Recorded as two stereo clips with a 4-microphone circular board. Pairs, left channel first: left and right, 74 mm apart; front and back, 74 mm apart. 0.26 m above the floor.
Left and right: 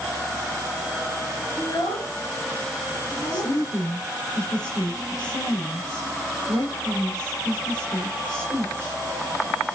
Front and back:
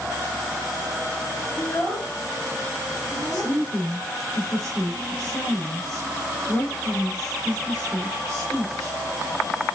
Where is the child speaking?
65° left, 1.9 m; by 3.5 s 95° left, 3.5 m.